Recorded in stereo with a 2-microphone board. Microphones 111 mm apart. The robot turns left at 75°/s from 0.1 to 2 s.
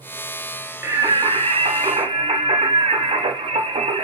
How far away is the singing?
About 1.1 m.